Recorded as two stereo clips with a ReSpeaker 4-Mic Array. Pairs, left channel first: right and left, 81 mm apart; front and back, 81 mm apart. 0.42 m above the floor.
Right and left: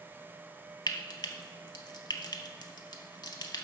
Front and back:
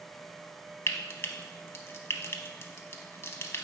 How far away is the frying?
About 0.7 m.